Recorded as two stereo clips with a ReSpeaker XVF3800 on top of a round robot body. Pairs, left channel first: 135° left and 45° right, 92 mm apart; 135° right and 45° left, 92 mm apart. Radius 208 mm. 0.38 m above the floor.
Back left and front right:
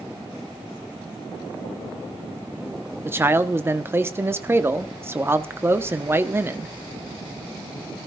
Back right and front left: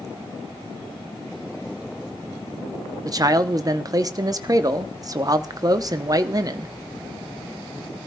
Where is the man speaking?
10° left, 1.0 m.